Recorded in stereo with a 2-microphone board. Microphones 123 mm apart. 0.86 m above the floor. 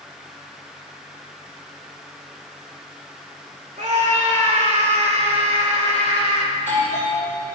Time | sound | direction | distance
3.8 | a scream | 80° right | 2.5 m
6.5 | a doorbell | 70° right (ahead or behind) | 4.5 m